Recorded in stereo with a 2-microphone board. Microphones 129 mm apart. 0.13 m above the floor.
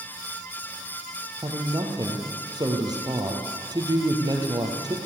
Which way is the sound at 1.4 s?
30° right (ahead or behind).